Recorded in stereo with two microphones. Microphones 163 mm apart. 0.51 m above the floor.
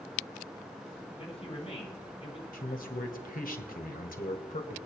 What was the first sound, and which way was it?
A man speaking, 40° left (ahead or behind).